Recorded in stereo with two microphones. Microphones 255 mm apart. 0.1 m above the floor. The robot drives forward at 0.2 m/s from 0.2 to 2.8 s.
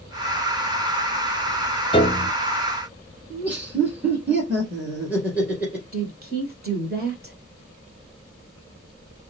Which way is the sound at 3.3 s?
5° right (ahead or behind).